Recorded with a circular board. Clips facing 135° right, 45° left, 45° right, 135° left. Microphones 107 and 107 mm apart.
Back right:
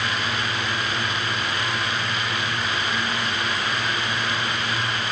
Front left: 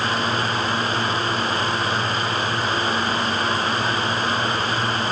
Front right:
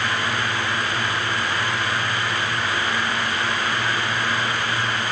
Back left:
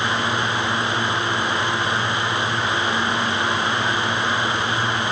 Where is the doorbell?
I don't hear a doorbell.